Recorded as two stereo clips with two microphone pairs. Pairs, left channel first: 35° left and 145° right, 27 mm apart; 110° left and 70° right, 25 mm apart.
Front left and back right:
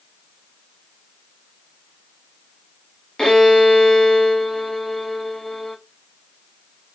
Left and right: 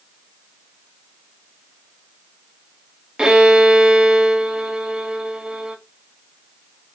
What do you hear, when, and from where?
3.2 s a violin: 35° right, 0.7 m